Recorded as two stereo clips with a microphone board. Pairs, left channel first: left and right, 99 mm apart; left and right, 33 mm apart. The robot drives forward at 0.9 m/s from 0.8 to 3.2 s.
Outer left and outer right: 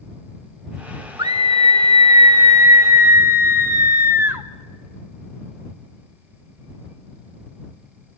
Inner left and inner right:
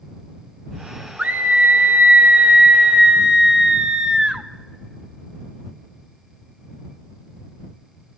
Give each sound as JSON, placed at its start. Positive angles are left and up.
{"t": 1.2, "sound": "a scream", "side_deg": -40, "distance_m": 1.0}